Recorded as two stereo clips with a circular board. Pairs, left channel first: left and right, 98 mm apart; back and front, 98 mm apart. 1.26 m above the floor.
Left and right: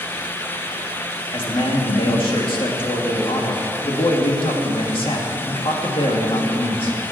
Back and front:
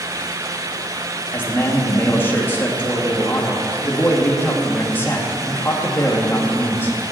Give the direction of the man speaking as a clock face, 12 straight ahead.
8 o'clock.